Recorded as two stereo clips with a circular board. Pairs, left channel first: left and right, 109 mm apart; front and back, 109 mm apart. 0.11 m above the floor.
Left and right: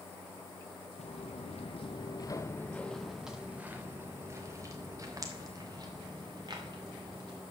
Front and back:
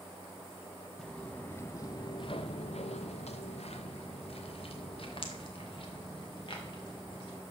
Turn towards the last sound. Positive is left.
turn(degrees=-40)